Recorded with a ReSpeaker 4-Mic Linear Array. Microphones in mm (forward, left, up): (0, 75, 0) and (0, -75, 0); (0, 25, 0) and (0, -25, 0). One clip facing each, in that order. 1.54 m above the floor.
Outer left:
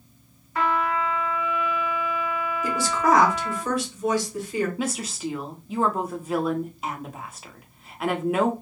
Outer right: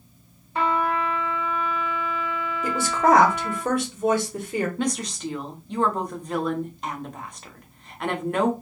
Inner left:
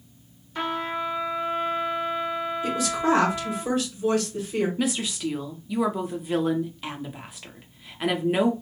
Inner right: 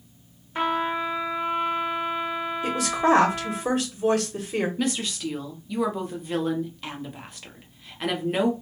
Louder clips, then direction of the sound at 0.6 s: Outer right 1 dB, inner right 3 dB; 25° right (ahead or behind).